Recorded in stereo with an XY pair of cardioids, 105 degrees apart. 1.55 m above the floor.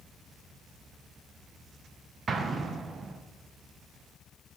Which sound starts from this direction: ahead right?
An explosion, at 2.3 s.